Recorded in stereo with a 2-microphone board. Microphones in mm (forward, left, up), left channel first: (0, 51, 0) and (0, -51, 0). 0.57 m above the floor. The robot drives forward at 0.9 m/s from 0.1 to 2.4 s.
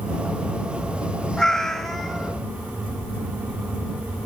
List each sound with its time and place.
1.4 s a cat meowing: 5° left (ahead or behind), 0.7 m